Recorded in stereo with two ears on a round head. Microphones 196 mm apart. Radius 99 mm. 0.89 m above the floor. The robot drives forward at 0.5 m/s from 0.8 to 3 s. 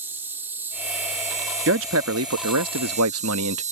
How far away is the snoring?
I don't hear snoring.